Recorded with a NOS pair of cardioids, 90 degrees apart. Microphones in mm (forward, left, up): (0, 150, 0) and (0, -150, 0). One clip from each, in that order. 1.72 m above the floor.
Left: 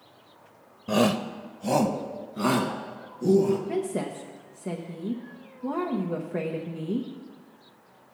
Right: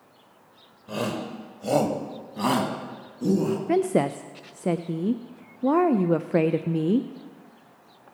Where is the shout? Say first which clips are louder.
Left 6 dB; 50° left, 0.8 m; by 3.6 s 20° right, 3.5 m.